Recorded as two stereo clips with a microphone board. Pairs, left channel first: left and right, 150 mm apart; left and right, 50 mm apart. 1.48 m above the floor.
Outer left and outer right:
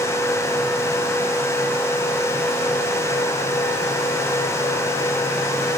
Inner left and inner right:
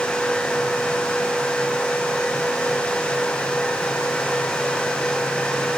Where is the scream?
No scream in this recording.